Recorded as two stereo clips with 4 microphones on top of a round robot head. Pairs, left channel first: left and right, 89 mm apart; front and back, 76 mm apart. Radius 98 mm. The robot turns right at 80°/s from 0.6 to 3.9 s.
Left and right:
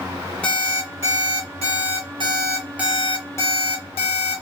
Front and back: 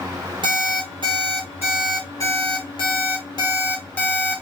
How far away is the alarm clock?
About 1.3 m.